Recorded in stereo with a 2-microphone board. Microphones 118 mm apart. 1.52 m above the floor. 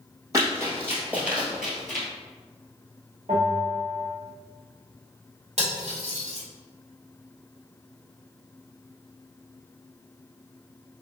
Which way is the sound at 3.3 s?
75° right (ahead or behind).